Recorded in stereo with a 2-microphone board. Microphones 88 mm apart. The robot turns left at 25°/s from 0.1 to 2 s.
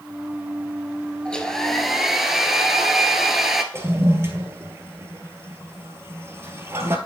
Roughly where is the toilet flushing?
Right.